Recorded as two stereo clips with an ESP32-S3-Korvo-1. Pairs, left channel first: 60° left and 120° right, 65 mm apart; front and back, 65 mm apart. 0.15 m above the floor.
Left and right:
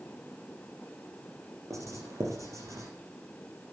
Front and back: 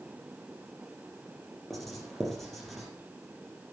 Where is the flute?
No flute in this recording.